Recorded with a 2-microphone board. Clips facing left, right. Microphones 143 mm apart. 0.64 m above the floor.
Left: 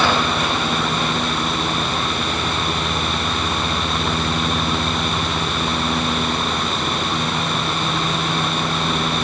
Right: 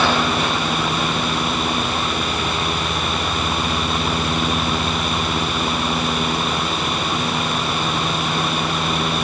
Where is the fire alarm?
No fire alarm in this recording.